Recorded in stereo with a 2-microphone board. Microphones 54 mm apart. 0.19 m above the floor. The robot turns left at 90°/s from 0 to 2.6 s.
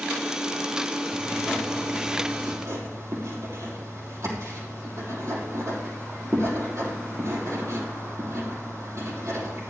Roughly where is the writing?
Ahead left.